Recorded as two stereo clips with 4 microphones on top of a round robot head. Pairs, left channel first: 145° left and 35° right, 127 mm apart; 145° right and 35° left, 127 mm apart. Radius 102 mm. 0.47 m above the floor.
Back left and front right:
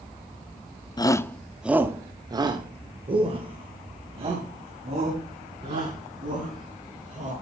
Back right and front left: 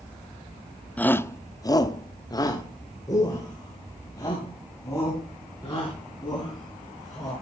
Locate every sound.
1.0 s a shout: 145° left, 0.8 m; by 7.3 s 75° right, 5 m